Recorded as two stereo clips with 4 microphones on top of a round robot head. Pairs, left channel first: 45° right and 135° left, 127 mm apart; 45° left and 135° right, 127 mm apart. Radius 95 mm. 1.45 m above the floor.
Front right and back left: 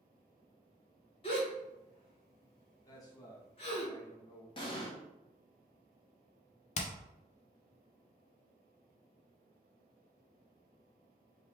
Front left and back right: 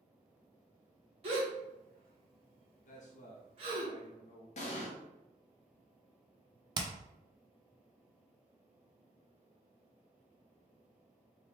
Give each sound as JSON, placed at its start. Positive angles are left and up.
{"t": 1.2, "sound": "a gasp", "azimuth_deg": -90, "distance_m": 1.1}
{"t": 2.9, "sound": "a man speaking", "azimuth_deg": 20, "distance_m": 1.2}
{"t": 4.6, "sound": "an explosion", "azimuth_deg": 10, "distance_m": 0.8}
{"t": 6.8, "sound": "hammering", "azimuth_deg": -80, "distance_m": 0.6}